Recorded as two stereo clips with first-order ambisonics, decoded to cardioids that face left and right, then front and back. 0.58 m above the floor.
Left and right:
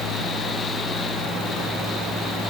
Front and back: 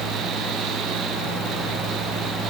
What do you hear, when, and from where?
Only background noise.